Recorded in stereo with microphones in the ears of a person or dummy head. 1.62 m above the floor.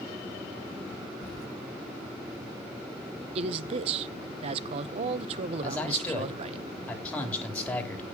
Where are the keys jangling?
55° left (ahead or behind), 1.2 m.